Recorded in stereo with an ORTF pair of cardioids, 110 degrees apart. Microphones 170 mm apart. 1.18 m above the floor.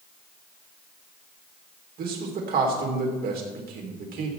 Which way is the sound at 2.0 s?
65° right.